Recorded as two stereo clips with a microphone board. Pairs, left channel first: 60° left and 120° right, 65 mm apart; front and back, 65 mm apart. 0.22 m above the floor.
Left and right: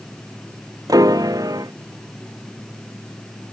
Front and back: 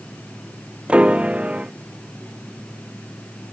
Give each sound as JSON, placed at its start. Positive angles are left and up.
{"t": 0.9, "sound": "a piano", "azimuth_deg": -110}